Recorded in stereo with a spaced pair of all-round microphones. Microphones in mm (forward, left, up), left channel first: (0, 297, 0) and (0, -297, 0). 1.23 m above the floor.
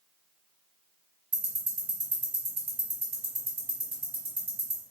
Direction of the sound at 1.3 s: 70° right (ahead or behind).